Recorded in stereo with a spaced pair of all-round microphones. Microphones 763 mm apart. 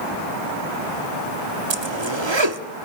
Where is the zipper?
35° right (ahead or behind), 1.2 m.